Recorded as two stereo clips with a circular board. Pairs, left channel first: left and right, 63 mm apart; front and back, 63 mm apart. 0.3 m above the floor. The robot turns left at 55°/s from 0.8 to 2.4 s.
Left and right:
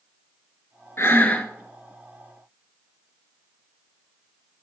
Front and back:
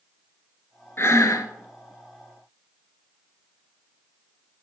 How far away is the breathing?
About 0.8 m.